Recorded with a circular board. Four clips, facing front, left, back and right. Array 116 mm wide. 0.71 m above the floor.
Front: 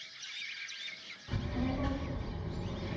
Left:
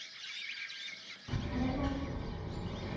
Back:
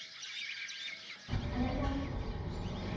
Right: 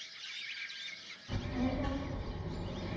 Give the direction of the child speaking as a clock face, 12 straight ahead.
10 o'clock.